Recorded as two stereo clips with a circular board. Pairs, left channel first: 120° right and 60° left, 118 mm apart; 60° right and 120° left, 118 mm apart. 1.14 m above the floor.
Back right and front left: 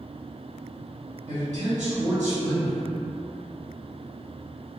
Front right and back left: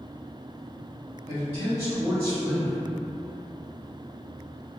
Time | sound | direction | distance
1.3 | a man speaking | 55° left | 1.4 m